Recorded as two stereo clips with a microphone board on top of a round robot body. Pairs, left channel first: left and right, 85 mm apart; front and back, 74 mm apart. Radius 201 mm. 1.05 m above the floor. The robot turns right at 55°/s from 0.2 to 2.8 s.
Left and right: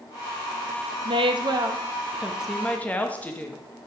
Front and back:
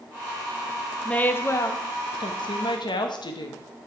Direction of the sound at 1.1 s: 80° right.